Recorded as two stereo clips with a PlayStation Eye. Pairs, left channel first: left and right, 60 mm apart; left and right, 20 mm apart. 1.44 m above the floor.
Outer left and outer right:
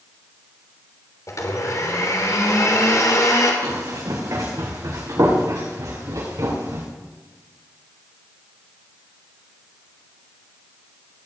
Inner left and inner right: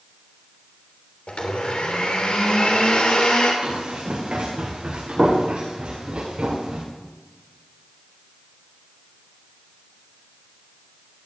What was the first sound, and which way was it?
A blender, 65° left (ahead or behind).